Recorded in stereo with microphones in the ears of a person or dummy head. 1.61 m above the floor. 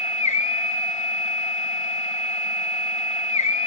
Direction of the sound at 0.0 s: 35° left (ahead or behind).